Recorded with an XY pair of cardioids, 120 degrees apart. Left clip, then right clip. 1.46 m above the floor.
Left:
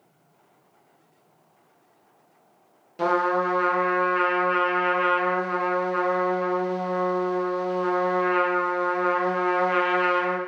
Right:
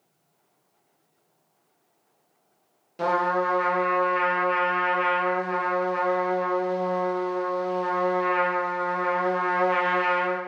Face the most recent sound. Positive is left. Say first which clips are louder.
# left 1 dB
turn(degrees=5)